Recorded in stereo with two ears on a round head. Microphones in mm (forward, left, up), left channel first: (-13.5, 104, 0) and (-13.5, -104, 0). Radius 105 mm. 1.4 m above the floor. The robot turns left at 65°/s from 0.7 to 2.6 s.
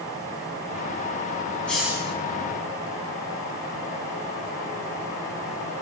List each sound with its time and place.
1.7 s a hiss: 5° left, 4 m; by 2.1 s 25° right, 4 m